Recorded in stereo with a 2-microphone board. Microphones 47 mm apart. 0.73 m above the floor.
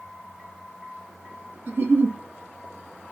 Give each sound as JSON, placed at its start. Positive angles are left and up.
{"t": 1.7, "sound": "a giggle", "side_deg": -45, "distance_m": 1.3}